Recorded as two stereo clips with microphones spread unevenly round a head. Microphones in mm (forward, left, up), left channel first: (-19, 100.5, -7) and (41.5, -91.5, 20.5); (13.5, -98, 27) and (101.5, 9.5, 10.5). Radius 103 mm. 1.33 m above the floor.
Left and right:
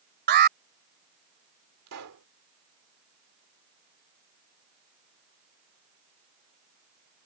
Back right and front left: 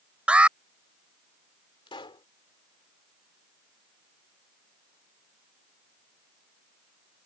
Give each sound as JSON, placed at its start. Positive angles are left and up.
{"t": 0.3, "sound": "an alarm", "azimuth_deg": -35}
{"t": 1.9, "sound": "a pop", "azimuth_deg": -75}